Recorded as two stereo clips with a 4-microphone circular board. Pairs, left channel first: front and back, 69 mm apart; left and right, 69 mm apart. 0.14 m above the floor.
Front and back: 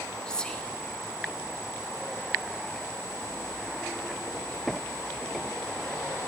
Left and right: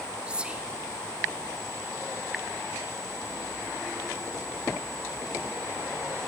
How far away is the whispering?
About 1.0 m.